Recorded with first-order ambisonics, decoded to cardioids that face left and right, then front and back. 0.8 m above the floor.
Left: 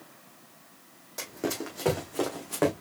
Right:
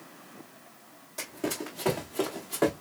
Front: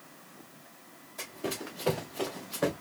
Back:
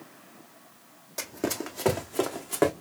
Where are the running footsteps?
165° left, 1.5 m.